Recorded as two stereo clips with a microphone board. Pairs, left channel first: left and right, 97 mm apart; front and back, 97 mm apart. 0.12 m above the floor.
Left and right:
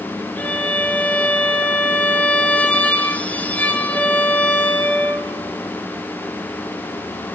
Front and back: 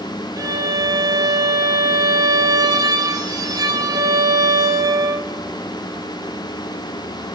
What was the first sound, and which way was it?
A violin, 155° left.